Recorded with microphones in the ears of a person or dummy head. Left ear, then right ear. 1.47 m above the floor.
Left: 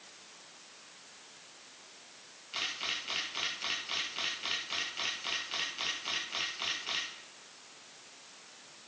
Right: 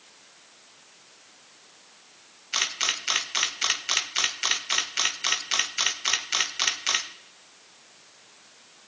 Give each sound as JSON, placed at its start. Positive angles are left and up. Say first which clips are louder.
{"t": 2.5, "sound": "a camera shutter", "louder": "right 9 dB", "side_deg": -65, "distance_m": 0.8}